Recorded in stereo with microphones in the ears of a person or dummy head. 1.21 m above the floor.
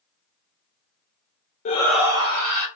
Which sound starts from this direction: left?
A shout, at 1.6 s.